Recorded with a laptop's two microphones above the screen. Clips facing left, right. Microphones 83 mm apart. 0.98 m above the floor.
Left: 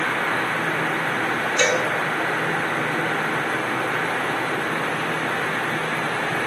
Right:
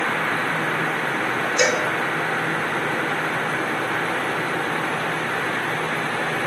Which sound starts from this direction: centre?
A cowbell, at 1.6 s.